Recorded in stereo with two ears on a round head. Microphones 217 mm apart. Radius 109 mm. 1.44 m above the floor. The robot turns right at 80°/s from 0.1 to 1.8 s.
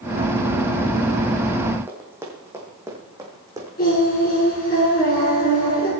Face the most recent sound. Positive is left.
turn(degrees=40)  # may be behind; listen again after turning